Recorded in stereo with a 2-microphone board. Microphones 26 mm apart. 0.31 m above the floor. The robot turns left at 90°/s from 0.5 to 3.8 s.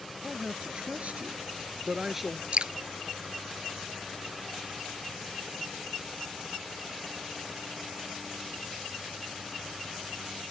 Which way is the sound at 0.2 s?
20° right.